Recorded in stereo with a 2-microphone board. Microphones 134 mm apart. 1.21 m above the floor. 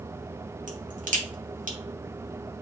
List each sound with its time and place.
0.7 s a crack: 75° right (ahead or behind), 1.3 m